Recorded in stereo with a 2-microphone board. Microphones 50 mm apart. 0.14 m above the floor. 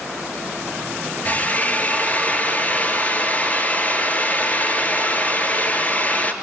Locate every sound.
1.2 s a drill: 30° left (ahead or behind), 2.5 m